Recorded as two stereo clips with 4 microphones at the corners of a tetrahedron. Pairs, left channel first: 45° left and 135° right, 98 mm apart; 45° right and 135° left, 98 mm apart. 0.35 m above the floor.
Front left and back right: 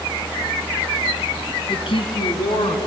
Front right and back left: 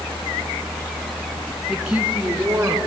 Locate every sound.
1.7 s a woman speaking: 50° left, 4 m; by 2.8 s 70° left, 4 m